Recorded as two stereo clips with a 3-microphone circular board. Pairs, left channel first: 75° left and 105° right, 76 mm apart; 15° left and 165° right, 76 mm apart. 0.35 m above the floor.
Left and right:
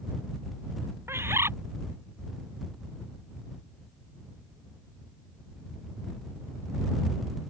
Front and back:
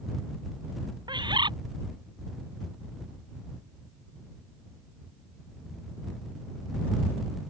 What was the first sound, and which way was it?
A bird, 160° right.